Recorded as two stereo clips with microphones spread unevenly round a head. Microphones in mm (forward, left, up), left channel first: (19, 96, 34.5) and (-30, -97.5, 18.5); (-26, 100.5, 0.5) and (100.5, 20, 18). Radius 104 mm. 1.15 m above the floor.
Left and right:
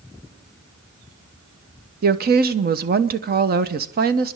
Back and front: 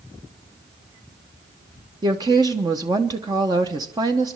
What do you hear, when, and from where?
2.0 s a woman speaking: 100° right, 0.9 m